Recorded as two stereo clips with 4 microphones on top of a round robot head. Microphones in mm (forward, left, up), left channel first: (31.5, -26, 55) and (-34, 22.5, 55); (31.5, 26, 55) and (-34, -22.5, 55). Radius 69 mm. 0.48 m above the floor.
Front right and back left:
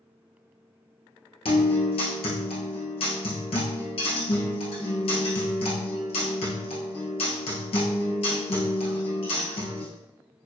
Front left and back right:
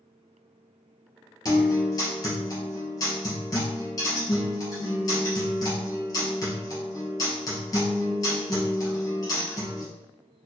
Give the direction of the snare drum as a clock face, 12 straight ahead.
I don't hear a snare drum.